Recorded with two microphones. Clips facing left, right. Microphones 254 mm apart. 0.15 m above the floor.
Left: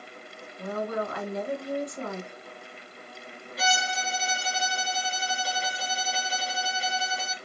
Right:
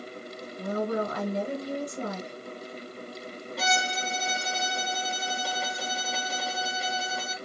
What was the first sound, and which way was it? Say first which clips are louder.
A woman speaking: right 3 dB; 35° right (ahead or behind).